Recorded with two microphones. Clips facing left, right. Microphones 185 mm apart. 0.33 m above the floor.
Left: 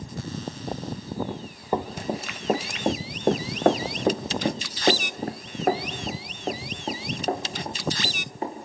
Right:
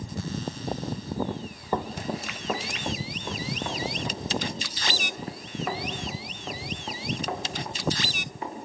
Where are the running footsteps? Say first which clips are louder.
Left 2 dB; 10° left (ahead or behind), 1.9 m; by 8.7 s 35° left (ahead or behind), 4 m.